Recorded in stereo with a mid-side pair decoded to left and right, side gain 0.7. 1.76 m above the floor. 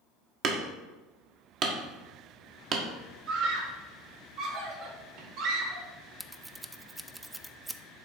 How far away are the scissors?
About 0.6 m.